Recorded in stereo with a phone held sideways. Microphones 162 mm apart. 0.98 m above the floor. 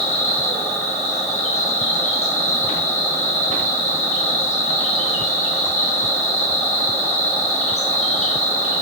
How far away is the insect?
About 1.5 m.